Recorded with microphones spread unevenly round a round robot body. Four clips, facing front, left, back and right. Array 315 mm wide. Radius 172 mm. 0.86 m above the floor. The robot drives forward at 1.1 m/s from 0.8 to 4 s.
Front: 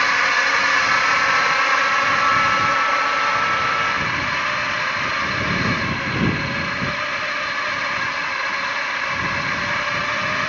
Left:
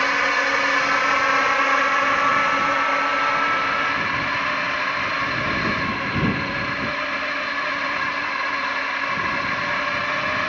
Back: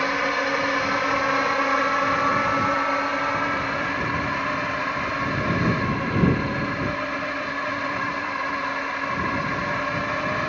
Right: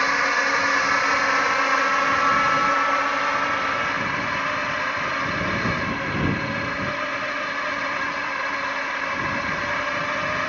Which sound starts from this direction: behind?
A drone, at 0.0 s.